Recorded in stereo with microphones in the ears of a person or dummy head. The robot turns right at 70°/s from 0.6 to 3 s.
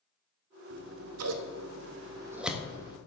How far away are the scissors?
About 0.6 m.